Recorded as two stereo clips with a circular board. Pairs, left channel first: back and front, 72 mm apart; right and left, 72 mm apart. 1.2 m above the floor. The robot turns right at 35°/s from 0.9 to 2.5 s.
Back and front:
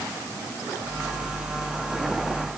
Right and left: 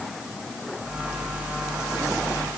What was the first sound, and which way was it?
Only background noise.